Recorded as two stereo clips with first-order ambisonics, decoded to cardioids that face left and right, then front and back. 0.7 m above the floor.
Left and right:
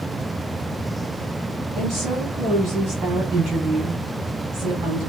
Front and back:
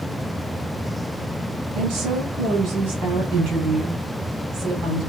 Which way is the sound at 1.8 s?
140° right.